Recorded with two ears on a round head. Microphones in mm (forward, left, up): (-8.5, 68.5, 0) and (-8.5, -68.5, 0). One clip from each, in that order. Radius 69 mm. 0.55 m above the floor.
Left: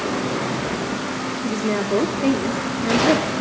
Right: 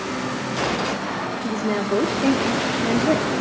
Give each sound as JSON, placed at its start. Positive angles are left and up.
{"t": 1.4, "sound": "a woman speaking", "side_deg": 0, "distance_m": 0.7}